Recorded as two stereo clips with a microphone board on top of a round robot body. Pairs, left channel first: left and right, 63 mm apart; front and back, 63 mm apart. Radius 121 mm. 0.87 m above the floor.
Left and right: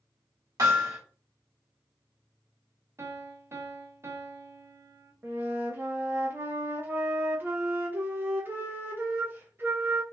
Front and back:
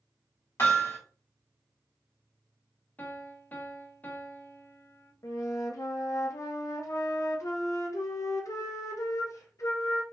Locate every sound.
0.6 s hammering: 50° right, 2 m
3.0 s a piano: 55° right, 1.0 m
5.2 s a flute: 35° right, 0.9 m